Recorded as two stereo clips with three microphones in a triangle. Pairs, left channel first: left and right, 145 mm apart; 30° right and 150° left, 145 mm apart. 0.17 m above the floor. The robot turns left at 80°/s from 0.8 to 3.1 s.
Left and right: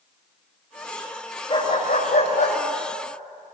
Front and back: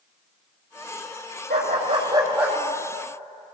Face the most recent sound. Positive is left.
turn(degrees=15)